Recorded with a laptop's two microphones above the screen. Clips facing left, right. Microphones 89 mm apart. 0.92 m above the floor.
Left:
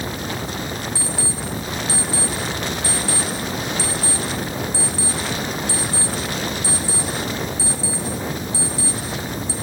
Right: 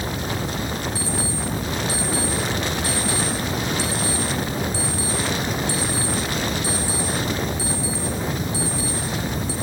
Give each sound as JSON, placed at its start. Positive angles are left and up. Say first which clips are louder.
{"t": 0.9, "sound": "an alarm clock", "louder": "right 1 dB", "side_deg": 30, "distance_m": 3.5}